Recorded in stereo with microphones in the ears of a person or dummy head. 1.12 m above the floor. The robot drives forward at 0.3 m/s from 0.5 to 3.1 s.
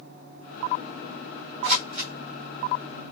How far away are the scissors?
About 1.4 m.